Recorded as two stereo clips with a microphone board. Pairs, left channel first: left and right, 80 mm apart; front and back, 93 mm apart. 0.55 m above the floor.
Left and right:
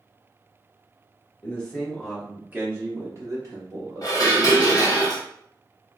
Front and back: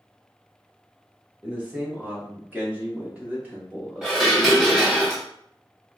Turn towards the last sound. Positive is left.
turn(degrees=95)